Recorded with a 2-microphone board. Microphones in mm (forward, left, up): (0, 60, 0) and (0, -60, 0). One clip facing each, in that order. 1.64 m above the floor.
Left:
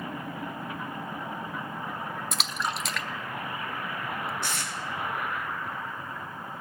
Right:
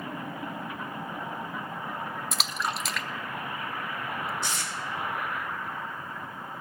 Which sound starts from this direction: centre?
A splash, at 2.3 s.